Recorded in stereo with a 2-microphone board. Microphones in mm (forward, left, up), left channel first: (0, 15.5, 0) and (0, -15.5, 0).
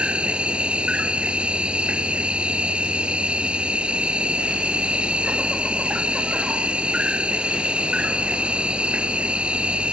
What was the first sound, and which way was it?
An insect, 35° right (ahead or behind).